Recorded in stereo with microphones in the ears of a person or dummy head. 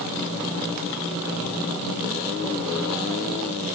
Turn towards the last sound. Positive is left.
No sound to turn to.